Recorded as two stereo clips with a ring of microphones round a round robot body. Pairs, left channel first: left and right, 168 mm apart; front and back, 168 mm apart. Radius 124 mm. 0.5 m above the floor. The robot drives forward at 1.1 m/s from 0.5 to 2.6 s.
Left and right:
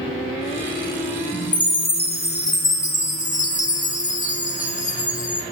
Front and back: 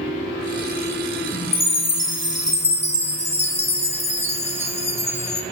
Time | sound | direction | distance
1.5 | a chime | 30° left | 2.5 m